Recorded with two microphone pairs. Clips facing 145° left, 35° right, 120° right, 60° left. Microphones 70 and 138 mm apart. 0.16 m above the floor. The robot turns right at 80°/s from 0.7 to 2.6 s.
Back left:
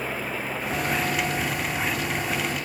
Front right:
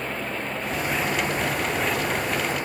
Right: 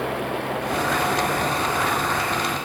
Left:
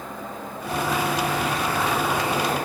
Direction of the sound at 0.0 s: 130° right.